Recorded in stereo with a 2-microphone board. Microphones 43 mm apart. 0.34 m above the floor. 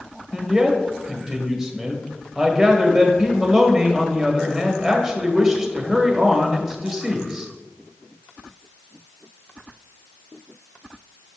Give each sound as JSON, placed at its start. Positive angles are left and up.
{"t": 0.3, "sound": "a man speaking", "side_deg": -10, "distance_m": 1.1}